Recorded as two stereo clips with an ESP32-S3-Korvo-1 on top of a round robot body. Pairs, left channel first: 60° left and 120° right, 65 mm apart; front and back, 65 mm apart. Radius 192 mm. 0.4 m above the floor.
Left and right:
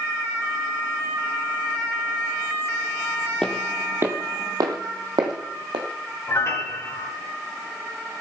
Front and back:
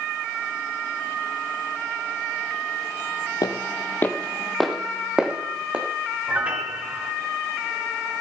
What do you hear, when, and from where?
3.4 s footsteps: 20° right, 0.9 m; by 5.8 s 110° right, 2 m
6.3 s a piano: 110° left, 1.9 m